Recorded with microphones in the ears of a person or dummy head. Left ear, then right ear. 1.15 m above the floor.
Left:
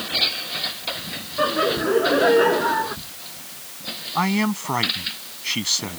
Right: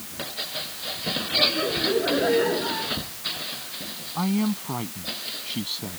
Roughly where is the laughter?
Left.